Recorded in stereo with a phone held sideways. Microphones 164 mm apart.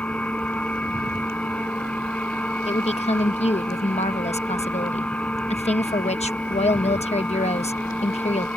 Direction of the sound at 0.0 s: 5° left (ahead or behind).